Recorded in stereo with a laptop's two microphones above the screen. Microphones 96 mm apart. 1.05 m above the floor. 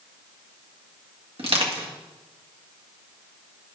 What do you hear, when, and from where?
1.4 s crushing: 70° right (ahead or behind), 2.5 m